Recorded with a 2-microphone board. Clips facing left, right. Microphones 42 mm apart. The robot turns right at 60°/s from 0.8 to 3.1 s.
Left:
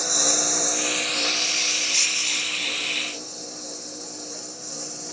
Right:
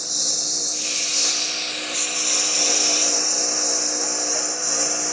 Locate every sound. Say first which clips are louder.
0.0 s a lawn mower: left 6 dB; 45° left (ahead or behind); by 5.1 s 60° right (ahead or behind)